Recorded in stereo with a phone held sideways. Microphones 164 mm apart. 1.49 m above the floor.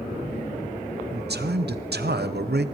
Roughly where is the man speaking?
Right.